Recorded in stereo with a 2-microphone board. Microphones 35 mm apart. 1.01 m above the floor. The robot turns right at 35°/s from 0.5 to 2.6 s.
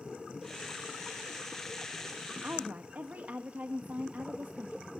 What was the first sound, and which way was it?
A woman speaking, 60° right (ahead or behind).